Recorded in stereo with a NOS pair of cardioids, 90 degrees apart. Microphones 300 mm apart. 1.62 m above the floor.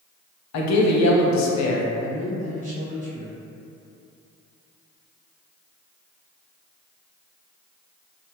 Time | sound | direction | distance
0.5 | a man speaking | 70° left | 0.7 m
2.0 | a man speaking | 25° right | 1.2 m